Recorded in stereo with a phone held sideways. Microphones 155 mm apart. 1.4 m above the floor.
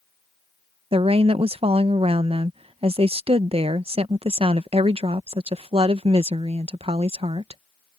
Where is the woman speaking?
40° right (ahead or behind).